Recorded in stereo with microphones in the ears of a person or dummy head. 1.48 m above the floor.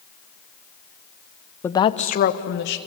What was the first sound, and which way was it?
A woman speaking, 20° left (ahead or behind).